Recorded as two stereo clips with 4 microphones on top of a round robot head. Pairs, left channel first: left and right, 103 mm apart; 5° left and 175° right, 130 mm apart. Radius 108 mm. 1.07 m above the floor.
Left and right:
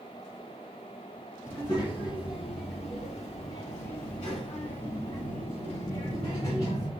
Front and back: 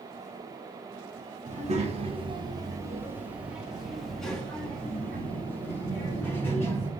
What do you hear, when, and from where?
1.4 s a child speaking: 155° left, 1.1 m; by 6.9 s 75° left, 3 m